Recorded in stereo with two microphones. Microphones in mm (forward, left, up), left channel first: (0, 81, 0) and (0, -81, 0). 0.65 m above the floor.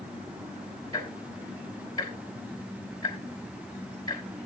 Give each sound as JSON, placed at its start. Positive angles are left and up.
{"t": 0.9, "sound": "ticking", "side_deg": 25, "distance_m": 3.0}